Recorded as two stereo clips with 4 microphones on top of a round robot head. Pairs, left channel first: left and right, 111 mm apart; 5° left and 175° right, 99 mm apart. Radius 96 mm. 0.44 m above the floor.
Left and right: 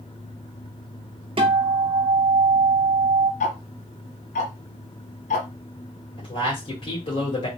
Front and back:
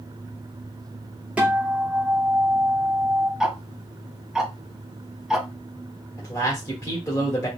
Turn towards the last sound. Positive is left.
turn(degrees=60)